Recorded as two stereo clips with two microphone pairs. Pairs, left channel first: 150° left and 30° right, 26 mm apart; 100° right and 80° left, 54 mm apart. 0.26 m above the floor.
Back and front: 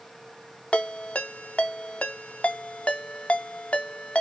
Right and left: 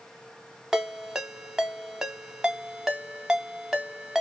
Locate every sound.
0.7 s a ringtone: 160° left, 0.5 m